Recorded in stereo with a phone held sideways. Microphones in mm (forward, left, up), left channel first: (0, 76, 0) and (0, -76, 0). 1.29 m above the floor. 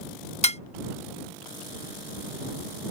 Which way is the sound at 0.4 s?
45° left (ahead or behind).